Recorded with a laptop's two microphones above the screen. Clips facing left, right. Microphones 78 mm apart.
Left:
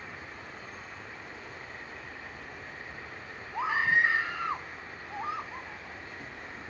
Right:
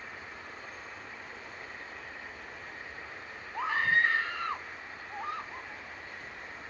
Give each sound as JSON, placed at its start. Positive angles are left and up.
{"t": 0.0, "sound": "an insect", "side_deg": 60}
{"t": 3.5, "sound": "a scream", "side_deg": 10}